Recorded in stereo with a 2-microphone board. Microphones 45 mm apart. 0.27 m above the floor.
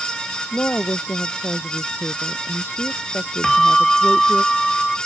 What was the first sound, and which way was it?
A woman speaking, 50° left (ahead or behind).